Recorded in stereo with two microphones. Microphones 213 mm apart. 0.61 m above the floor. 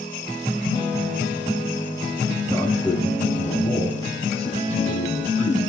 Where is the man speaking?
25° left (ahead or behind), 6.5 m; by 5.7 s 35° left (ahead or behind), 5.5 m.